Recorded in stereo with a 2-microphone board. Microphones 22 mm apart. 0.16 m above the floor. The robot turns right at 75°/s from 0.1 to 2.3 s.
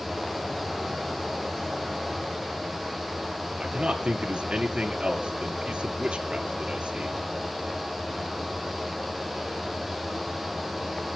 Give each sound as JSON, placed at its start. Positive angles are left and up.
{"t": 3.6, "sound": "a man speaking", "side_deg": -50, "distance_m": 2.5}